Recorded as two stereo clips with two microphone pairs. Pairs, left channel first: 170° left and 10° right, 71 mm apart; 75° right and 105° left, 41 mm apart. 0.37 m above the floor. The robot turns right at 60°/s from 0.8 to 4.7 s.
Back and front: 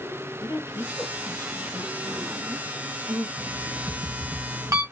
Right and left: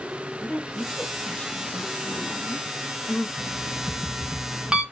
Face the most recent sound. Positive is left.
turn(degrees=30)